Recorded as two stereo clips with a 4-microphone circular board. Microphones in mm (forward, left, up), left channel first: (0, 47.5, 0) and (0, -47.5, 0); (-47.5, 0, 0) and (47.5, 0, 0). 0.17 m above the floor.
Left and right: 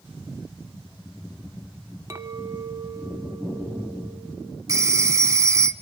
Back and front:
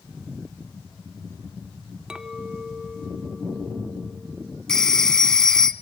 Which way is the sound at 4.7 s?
100° right.